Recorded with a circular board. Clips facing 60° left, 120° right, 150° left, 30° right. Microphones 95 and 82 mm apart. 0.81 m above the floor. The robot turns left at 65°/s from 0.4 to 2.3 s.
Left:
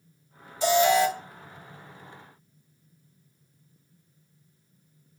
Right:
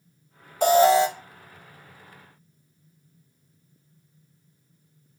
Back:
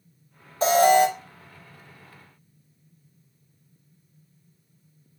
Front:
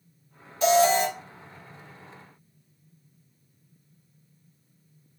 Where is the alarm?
155° right, 0.9 m; by 1.1 s 175° left, 0.9 m.